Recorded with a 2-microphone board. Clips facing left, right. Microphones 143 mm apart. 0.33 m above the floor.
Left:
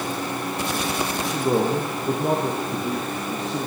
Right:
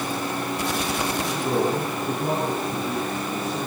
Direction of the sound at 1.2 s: 35° left (ahead or behind).